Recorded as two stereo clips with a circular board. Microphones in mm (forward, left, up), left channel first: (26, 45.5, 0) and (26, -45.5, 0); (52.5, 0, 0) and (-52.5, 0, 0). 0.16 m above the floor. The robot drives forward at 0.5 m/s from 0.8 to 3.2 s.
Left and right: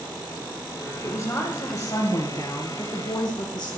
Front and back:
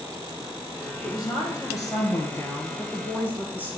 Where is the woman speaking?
45° left, 2.5 m; by 3.8 s 70° left, 2 m.